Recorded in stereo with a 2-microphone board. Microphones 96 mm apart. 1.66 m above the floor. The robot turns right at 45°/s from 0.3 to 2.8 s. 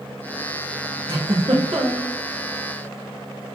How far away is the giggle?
About 1.8 m.